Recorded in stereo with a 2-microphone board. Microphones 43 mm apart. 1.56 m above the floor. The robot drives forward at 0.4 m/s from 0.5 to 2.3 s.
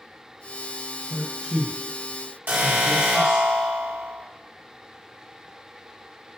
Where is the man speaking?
35° right (ahead or behind), 1.3 m; by 3.5 s 25° right (ahead or behind), 1.7 m.